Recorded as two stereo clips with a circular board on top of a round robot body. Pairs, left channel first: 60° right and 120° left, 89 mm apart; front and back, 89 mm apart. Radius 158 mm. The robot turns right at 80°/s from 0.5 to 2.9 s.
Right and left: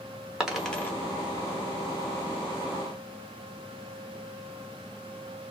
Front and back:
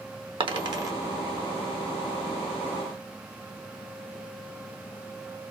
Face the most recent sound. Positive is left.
turn(degrees=35)